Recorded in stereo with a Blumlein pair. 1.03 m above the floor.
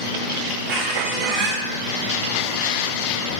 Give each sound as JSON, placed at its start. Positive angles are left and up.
{"t": 0.7, "sound": "a squeak", "azimuth_deg": -35, "distance_m": 0.5}